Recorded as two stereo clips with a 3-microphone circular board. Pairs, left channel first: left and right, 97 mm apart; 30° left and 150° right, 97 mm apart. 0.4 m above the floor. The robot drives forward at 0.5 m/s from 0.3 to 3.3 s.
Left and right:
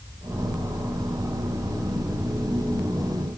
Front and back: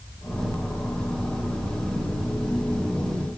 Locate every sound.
Only background noise.